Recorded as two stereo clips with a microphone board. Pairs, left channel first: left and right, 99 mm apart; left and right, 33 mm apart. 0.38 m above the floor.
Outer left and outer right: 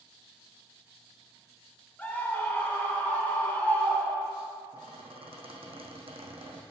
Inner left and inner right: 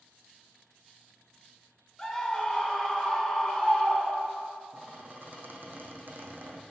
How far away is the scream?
About 0.9 m.